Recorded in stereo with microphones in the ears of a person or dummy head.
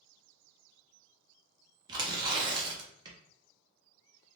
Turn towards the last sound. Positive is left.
turn(degrees=-20)  # may be behind; listen again after turning